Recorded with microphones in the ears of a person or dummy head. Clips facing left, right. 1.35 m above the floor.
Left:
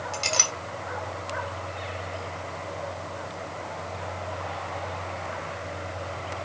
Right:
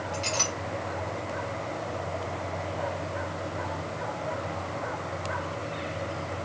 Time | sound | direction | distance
0.1 | a clink | 60° left (ahead or behind) | 0.9 m